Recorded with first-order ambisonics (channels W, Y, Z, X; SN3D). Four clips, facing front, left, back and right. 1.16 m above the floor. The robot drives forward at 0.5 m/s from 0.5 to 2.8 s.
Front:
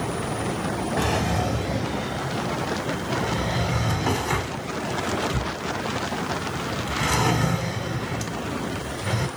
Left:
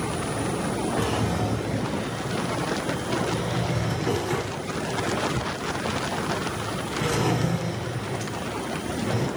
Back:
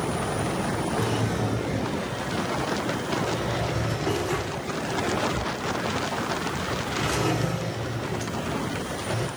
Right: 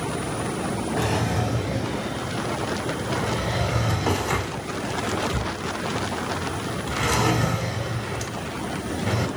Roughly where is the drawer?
Ahead right.